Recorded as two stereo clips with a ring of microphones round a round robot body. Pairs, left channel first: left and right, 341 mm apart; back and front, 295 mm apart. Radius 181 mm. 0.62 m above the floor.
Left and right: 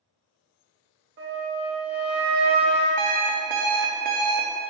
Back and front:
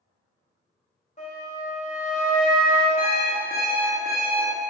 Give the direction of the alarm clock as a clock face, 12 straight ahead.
4 o'clock.